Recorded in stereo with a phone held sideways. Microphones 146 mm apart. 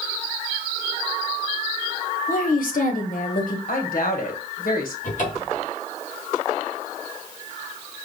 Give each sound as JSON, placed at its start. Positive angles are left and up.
{"t": 2.3, "sound": "a woman speaking", "side_deg": 65, "distance_m": 1.0}
{"t": 3.7, "sound": "a woman speaking", "side_deg": 80, "distance_m": 1.2}
{"t": 5.0, "sound": "a cupboard door", "side_deg": 60, "distance_m": 1.9}